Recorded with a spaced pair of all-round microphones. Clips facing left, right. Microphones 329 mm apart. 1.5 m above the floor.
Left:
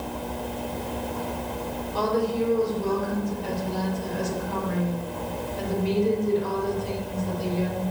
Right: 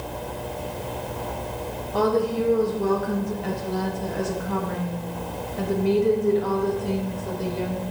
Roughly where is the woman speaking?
Right.